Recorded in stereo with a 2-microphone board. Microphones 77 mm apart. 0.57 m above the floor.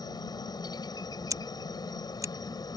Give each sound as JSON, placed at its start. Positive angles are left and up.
{"t": 0.0, "sound": "a helicopter", "side_deg": 60}
{"t": 1.3, "sound": "scissors", "side_deg": -50}